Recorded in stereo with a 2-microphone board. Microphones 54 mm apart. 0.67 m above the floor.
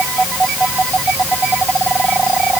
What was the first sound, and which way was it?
Only background noise.